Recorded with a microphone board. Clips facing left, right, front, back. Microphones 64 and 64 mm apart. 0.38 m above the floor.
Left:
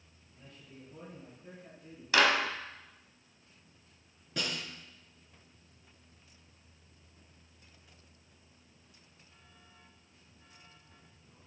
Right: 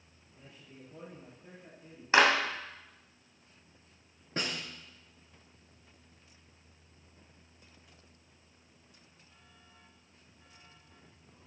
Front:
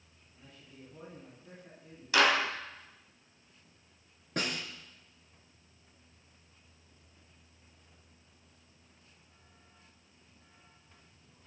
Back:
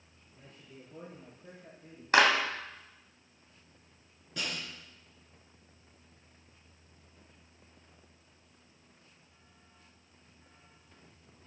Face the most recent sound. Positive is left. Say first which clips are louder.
# right 1 dB, front 3 dB
turn(degrees=-35)